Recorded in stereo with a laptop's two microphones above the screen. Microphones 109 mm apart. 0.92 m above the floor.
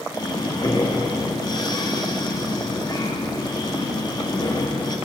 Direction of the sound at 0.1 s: 40° left (ahead or behind).